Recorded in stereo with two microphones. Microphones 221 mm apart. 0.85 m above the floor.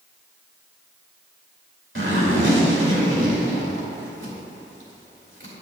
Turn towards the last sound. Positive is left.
turn(degrees=-70)  # may be behind; listen again after turning